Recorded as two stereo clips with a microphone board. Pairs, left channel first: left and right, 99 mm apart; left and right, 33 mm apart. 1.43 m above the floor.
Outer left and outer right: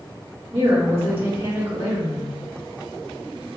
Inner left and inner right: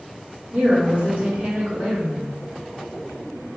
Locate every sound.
0.5 s a woman speaking: 70° right (ahead or behind), 1.7 m